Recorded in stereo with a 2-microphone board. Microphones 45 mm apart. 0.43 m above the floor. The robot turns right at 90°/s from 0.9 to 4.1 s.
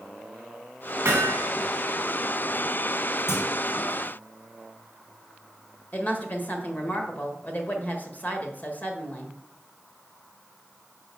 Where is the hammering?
105° right, 2.5 m; by 1.5 s 70° right, 2.5 m.